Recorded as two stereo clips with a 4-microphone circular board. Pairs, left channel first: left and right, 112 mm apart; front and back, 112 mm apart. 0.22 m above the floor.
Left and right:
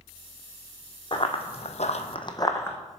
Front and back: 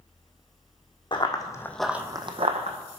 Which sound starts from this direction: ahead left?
Running footsteps, at 1.1 s.